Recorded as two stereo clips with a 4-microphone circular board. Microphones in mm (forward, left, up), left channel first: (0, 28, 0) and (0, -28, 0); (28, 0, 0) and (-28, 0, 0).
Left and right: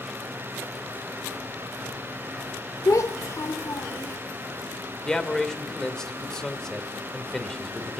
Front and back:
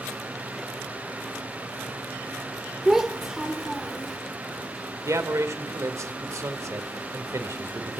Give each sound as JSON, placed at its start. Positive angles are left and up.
{"t": 2.9, "sound": "a child speaking", "azimuth_deg": 100, "distance_m": 1.7}
{"t": 5.0, "sound": "a man speaking", "azimuth_deg": 170, "distance_m": 2.0}